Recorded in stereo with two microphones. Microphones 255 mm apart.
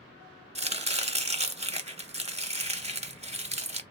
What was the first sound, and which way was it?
Chopping, 25° right (ahead or behind).